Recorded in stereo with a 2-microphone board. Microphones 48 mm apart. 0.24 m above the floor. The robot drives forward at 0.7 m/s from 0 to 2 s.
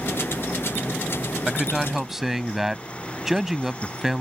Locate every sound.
1.5 s a man speaking: 10° right (ahead or behind); by 4.2 s 5° right (ahead or behind)